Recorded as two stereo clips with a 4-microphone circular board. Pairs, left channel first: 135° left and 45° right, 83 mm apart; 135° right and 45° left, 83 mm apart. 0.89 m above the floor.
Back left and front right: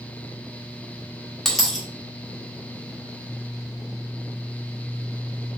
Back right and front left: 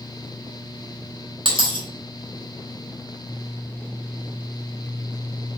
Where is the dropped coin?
50° left, 1.0 m.